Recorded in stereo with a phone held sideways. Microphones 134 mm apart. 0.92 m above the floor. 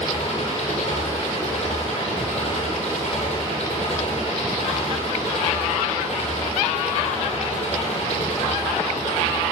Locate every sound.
0.0 s an engine running: 50° left (ahead or behind), 9 m